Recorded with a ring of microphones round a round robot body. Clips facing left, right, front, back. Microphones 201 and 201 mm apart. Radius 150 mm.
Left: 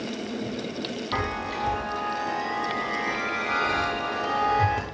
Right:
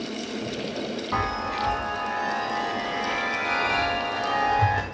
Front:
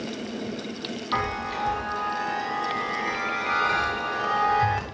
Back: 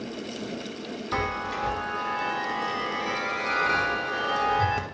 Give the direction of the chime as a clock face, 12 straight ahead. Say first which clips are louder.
Right 1 dB, back 2 dB; 7 o'clock.